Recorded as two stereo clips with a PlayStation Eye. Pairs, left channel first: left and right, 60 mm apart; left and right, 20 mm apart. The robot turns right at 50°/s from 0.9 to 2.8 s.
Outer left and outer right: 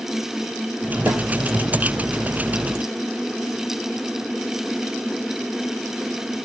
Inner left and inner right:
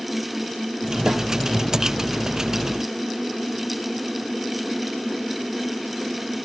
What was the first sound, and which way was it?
A snare drum, 50° right (ahead or behind).